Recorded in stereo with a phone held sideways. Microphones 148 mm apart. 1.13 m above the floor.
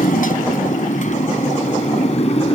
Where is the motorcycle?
70° left (ahead or behind); by 2.5 s 45° left (ahead or behind).